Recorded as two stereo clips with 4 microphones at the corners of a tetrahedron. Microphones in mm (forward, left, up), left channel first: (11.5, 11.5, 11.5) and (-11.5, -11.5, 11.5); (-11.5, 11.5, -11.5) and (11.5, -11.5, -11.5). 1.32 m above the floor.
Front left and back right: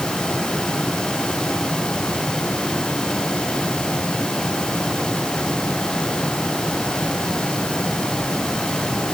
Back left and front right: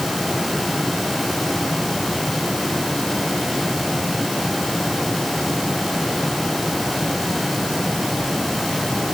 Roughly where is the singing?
I don't hear singing.